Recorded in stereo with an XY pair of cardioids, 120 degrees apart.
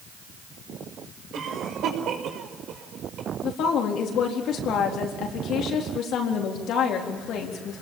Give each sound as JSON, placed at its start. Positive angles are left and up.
{"t": 1.3, "sound": "a cough", "azimuth_deg": -65, "distance_m": 5.5}
{"t": 3.4, "sound": "a woman speaking", "azimuth_deg": 65, "distance_m": 4.0}